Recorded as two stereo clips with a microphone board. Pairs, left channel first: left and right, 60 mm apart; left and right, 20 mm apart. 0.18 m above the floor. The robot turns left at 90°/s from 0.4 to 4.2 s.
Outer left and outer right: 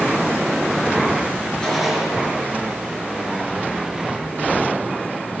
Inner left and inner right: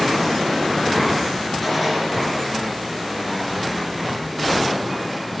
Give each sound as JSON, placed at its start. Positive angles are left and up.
{"t": 1.6, "sound": "a gunshot", "azimuth_deg": 20, "distance_m": 3.5}